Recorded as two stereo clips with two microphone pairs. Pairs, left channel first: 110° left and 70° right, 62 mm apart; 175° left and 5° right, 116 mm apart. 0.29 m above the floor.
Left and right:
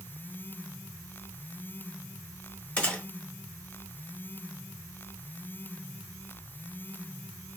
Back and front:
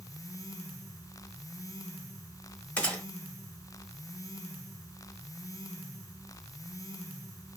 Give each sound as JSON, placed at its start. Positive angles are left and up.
{"t": 2.8, "sound": "a gunshot", "azimuth_deg": 120, "distance_m": 1.0}